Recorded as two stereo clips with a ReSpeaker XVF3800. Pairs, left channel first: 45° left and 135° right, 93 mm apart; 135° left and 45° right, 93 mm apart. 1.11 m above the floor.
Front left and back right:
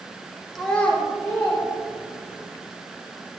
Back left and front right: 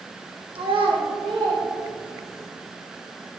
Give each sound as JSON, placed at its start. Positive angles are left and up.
{"t": 0.6, "sound": "a child speaking", "azimuth_deg": -45, "distance_m": 0.5}